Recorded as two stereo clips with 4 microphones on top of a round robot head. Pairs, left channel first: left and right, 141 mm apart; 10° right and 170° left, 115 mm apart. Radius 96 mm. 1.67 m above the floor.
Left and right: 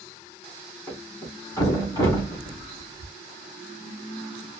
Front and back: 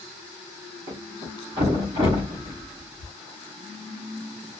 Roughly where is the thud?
Behind left.